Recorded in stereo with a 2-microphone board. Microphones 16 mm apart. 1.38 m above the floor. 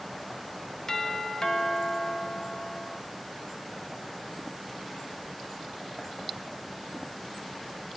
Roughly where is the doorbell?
Left.